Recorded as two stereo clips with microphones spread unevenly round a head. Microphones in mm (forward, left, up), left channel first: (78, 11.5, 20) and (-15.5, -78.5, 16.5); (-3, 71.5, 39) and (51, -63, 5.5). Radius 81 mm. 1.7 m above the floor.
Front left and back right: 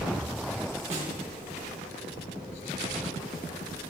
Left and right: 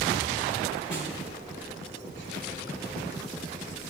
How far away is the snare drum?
About 1.7 m.